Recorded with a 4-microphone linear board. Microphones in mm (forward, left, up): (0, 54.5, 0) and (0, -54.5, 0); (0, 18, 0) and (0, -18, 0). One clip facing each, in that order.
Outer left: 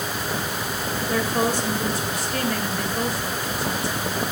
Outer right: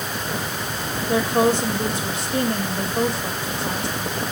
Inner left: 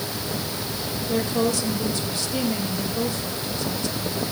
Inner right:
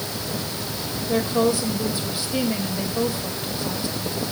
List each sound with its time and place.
1.1 s a woman speaking: 25° right (ahead or behind), 2.5 m